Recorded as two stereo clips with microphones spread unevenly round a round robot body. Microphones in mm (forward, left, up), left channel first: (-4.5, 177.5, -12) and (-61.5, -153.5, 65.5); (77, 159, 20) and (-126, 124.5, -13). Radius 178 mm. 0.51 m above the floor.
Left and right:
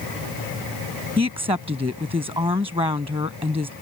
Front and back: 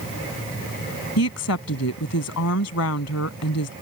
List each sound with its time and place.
1.2 s a woman speaking: 20° right